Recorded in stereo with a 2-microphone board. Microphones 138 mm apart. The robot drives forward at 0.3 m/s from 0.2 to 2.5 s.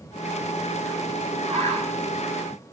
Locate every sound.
1.5 s a bird: 55° right (ahead or behind), 6 m; by 2.7 s 60° right (ahead or behind), 6 m